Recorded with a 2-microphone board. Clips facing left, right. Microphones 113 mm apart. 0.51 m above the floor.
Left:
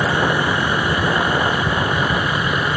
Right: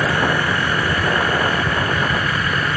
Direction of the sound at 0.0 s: 15° left (ahead or behind).